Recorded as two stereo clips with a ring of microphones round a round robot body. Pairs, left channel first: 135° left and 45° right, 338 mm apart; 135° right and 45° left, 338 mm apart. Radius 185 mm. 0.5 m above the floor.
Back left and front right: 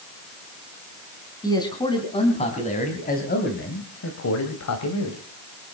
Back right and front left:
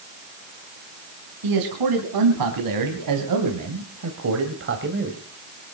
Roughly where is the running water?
No running water in this recording.